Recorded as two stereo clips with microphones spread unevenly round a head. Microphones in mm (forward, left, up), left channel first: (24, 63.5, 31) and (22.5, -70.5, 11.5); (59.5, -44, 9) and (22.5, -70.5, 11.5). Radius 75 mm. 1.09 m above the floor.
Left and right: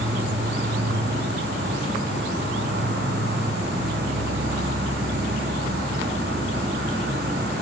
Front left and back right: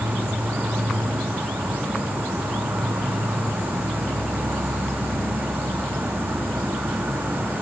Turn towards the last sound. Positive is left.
turn(degrees=-110)